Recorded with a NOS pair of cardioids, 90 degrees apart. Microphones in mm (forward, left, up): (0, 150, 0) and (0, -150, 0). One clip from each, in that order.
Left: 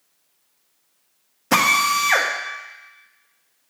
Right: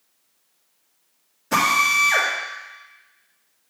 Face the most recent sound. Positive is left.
turn(degrees=45)